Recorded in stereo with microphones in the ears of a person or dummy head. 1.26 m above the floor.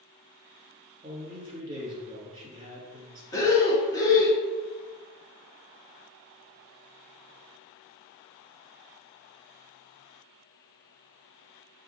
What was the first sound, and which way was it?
A man speaking, 25° right (ahead or behind).